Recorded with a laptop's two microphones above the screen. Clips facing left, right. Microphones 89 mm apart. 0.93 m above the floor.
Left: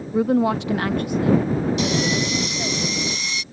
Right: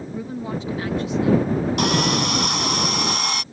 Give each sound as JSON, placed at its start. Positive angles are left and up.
{"t": 0.1, "sound": "a woman speaking", "side_deg": 60}
{"t": 1.8, "sound": "sawing", "side_deg": -60}